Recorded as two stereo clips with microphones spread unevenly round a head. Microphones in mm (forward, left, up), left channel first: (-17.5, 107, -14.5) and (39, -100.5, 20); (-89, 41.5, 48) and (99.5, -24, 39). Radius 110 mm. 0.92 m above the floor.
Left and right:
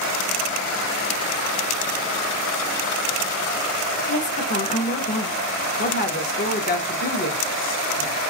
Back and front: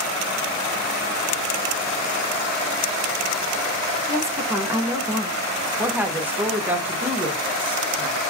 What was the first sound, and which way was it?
A woman speaking, 55° left.